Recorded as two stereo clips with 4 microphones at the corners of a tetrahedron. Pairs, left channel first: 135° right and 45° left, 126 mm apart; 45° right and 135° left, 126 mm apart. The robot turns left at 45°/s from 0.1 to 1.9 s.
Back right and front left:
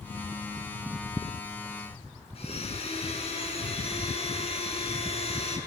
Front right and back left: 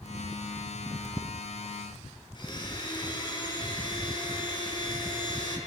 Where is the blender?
100° right, 6.5 m.